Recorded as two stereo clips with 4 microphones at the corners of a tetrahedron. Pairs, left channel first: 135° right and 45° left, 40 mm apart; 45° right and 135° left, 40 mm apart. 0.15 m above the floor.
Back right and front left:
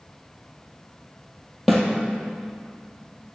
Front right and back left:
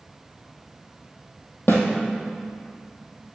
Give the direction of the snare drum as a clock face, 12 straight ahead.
2 o'clock.